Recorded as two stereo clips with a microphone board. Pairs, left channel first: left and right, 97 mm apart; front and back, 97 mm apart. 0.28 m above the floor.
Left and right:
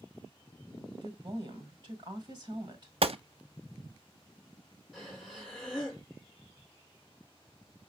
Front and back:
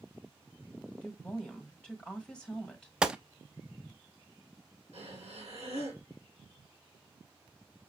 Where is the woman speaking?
75° right, 1.8 m.